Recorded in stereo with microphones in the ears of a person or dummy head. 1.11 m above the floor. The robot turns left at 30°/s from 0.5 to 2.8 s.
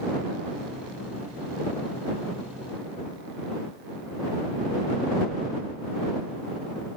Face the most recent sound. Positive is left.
No sound to turn to.